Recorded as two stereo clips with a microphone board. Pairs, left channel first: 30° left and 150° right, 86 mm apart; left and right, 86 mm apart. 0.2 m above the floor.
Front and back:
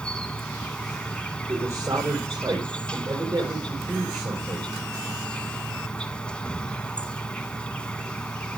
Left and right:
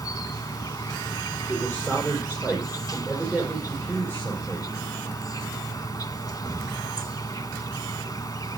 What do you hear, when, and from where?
0.0 s an insect: 105° left, 0.9 m
1.5 s a man speaking: 155° left, 6 m